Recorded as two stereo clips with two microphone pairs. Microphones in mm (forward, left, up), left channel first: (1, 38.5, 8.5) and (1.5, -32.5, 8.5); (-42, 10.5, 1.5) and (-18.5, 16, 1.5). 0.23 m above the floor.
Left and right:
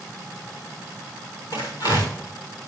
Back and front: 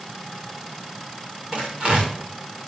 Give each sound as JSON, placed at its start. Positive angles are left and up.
{"t": 1.5, "sound": "tearing paper", "azimuth_deg": 60, "distance_m": 7.5}